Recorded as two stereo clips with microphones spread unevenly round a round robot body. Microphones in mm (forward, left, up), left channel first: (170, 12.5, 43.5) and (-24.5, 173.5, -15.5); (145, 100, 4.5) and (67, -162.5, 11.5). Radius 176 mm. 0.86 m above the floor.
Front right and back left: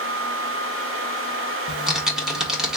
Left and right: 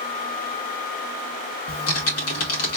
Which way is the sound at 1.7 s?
60° left.